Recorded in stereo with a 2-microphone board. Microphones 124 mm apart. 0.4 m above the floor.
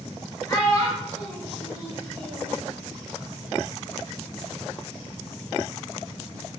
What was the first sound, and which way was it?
A child speaking, 30° left (ahead or behind).